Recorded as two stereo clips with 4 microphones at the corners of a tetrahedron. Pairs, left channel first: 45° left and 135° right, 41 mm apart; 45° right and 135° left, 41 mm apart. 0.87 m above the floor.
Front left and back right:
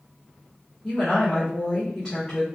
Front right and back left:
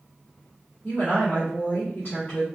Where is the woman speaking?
15° right, 1.9 m.